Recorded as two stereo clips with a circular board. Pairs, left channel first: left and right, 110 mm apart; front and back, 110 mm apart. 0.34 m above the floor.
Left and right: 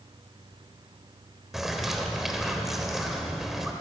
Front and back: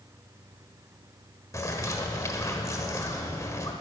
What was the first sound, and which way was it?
A bird, 5° right.